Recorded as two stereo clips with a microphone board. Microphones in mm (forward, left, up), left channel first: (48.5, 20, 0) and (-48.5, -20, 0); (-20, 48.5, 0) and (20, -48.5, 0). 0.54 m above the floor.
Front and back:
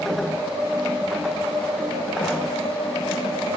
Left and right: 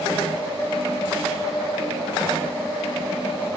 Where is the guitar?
No guitar in this recording.